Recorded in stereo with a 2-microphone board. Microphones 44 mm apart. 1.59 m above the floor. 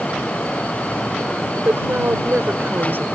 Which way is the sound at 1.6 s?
65° right (ahead or behind).